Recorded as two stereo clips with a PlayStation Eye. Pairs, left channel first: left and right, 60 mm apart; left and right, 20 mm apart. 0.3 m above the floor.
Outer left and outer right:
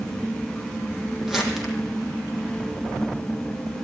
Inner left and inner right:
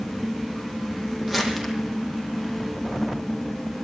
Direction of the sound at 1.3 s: 5° right (ahead or behind).